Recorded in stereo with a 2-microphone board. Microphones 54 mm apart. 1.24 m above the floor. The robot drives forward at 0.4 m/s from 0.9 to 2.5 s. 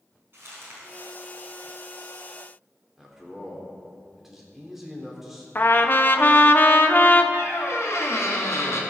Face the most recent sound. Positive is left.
turn(degrees=55)  # may be behind; listen again after turning